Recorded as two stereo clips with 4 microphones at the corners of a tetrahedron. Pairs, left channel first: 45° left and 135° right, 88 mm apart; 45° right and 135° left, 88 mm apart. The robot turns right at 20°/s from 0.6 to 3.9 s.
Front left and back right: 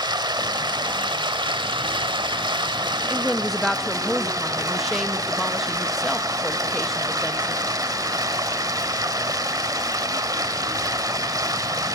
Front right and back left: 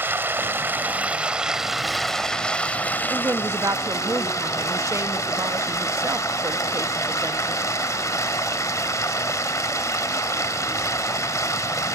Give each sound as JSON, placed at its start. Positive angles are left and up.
{"t": 0.0, "sound": "running water", "azimuth_deg": -160, "distance_m": 1.0}
{"t": 3.1, "sound": "a woman speaking", "azimuth_deg": 125, "distance_m": 0.7}